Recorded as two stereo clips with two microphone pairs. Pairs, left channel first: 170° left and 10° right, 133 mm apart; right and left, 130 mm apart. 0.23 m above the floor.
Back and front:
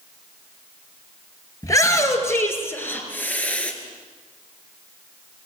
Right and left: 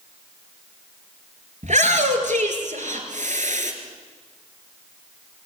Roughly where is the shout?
Left.